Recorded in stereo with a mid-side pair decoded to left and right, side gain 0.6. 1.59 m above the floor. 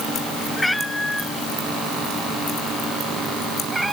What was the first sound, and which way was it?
A cat meowing, 10° left.